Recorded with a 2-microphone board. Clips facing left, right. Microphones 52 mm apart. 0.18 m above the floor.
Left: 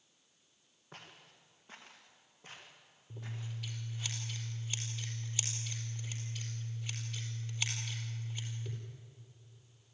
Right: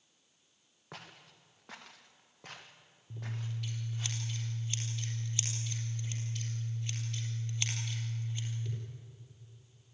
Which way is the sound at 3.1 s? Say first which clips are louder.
Right 3 dB; 5° left (ahead or behind).